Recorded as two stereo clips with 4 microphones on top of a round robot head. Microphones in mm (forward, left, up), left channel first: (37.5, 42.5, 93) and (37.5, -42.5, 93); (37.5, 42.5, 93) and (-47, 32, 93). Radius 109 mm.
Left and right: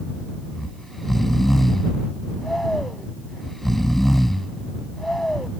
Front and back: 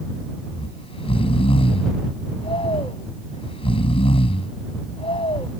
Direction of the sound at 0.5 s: 5° left.